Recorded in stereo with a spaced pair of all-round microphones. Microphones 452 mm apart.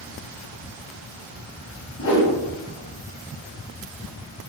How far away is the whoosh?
About 0.6 m.